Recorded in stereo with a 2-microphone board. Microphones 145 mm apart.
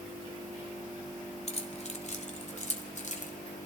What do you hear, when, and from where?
1.5 s keys jangling: 50° left (ahead or behind), 1.6 m; by 3.3 s 60° left (ahead or behind), 2.5 m